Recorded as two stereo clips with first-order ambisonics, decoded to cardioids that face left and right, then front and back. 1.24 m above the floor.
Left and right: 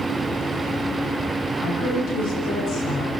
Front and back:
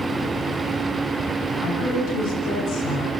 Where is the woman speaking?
50° left, 5.5 m; by 3.1 s 45° left, 4 m.